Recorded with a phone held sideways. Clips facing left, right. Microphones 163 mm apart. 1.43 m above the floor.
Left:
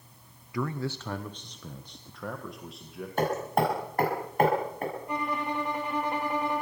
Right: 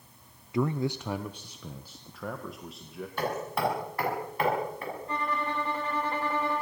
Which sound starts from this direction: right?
A man speaking, at 0.5 s.